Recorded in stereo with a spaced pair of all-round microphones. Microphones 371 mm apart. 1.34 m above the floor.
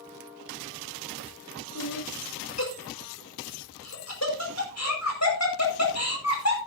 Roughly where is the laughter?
Left.